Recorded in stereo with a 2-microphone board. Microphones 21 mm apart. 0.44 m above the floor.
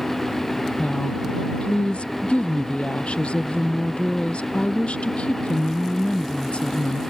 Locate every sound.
0.8 s a woman speaking: 85° left